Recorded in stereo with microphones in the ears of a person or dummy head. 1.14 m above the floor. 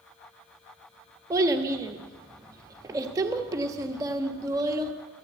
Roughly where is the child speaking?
Centre.